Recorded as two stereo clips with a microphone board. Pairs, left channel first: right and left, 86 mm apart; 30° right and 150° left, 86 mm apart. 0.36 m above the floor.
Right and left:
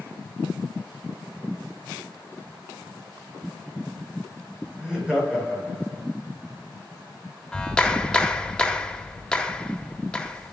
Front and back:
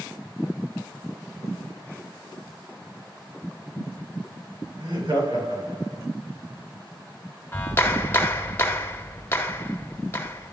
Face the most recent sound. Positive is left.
turn(degrees=-25)